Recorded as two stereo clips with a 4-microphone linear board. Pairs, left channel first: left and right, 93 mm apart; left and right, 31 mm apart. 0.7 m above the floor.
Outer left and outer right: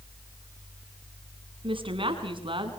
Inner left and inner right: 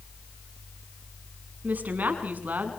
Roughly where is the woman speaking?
Right.